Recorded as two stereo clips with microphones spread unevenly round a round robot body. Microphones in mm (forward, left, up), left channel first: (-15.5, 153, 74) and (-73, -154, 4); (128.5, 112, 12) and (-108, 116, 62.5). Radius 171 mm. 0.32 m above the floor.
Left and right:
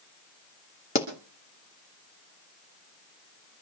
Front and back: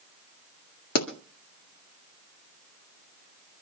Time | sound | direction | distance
0.9 | a pop | 10° left | 1.9 m